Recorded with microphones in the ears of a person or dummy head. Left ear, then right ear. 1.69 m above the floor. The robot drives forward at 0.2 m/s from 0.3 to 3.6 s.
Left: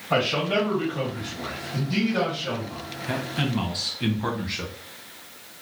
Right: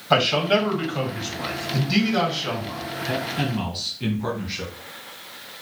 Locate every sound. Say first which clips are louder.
0.1 s a man speaking: right 4 dB; 60° right (ahead or behind), 1.6 m; by 2.8 s 75° right (ahead or behind), 1.4 m
3.1 s a man speaking: right 1 dB; 15° left (ahead or behind), 0.8 m